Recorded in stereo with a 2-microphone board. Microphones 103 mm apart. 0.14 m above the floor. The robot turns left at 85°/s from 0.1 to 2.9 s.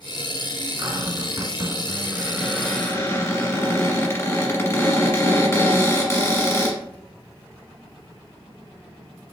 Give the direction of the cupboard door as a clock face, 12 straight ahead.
2 o'clock.